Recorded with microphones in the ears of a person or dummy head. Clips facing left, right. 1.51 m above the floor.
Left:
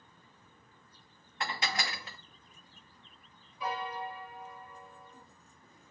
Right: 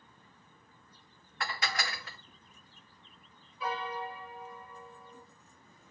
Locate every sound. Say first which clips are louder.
1.4 s dishes clattering: left 1 dB; 25° left (ahead or behind), 0.9 m
3.6 s a piano: even; 20° left (ahead or behind), 6.5 m